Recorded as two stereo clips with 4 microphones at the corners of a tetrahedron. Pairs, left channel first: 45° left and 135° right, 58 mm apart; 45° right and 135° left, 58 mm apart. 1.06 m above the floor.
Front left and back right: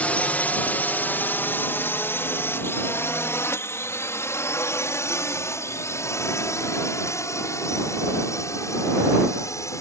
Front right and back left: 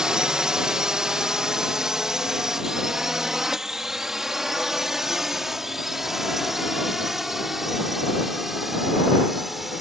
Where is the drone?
70° left; by 9.8 s 50° left.